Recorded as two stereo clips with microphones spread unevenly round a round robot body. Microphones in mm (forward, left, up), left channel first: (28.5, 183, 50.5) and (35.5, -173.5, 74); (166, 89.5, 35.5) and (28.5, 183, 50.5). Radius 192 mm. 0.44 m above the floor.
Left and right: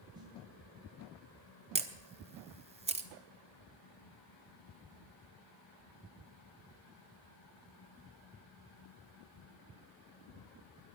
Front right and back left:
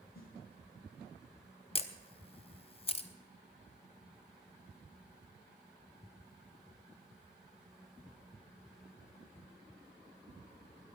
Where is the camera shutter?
20° right, 1.4 m.